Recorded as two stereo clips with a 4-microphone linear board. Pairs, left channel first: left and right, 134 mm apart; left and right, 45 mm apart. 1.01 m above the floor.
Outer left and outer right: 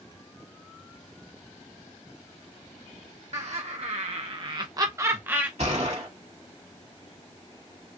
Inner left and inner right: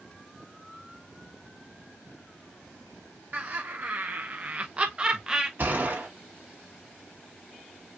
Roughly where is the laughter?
Right.